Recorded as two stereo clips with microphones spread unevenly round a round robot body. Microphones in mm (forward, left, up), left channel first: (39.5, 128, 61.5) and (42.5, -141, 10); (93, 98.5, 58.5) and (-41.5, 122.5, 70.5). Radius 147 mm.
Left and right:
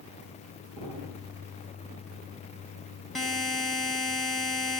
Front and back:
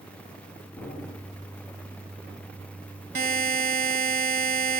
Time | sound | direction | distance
0.8 | an explosion | 105° right | 9 m
3.1 | a buzzer | straight behind | 1.0 m